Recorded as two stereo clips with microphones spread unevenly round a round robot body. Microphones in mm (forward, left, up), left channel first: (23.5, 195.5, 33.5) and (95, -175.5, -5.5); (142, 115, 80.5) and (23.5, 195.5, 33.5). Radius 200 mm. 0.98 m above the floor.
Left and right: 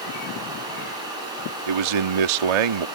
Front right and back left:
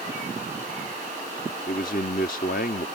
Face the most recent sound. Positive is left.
turn(degrees=-95)